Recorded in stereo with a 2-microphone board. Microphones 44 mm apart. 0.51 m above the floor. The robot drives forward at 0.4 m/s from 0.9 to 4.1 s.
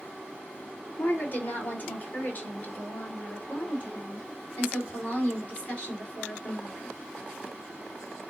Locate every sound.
1.0 s a woman speaking: 50° left (ahead or behind), 1.8 m; by 6.9 s 35° left (ahead or behind), 2.5 m